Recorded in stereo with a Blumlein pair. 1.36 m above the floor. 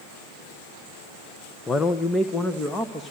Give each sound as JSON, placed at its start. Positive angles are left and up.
{"t": 1.7, "sound": "a man speaking", "azimuth_deg": 15, "distance_m": 1.0}